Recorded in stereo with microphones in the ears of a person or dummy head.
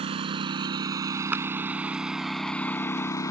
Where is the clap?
5° right (ahead or behind).